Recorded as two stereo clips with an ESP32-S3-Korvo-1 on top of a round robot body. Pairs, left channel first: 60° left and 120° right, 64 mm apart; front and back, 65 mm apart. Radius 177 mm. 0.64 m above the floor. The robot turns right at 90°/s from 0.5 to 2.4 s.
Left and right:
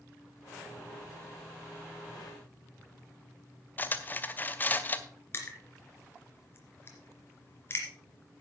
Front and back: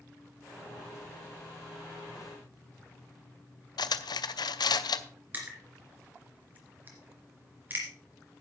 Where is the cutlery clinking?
5° right, 0.7 m.